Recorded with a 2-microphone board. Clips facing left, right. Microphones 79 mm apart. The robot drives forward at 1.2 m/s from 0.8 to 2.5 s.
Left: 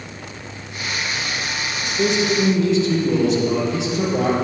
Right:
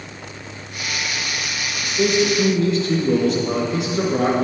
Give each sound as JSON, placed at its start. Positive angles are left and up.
{"t": 1.8, "sound": "a man speaking", "side_deg": -45, "distance_m": 3.0}